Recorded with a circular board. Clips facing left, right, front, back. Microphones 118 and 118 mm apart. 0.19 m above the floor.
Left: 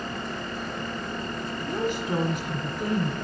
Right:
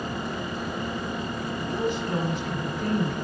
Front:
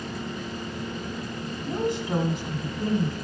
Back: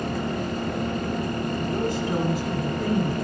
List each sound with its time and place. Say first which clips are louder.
1.7 s a woman speaking: even, front 2 dB; 30° left, 1.2 m